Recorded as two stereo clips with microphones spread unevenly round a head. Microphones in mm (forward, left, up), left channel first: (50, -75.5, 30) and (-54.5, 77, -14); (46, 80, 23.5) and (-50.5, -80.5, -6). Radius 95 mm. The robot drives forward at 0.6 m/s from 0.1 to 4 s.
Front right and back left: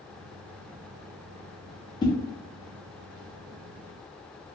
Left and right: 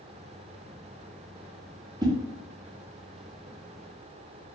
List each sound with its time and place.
2.0 s a whoosh: 50° right, 0.8 m; by 2.1 s 60° right, 0.8 m